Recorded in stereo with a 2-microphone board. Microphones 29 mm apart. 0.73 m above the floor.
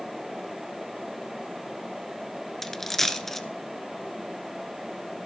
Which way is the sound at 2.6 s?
10° left (ahead or behind).